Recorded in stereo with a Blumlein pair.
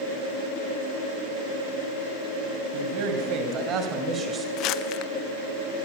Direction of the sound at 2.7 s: 40° right.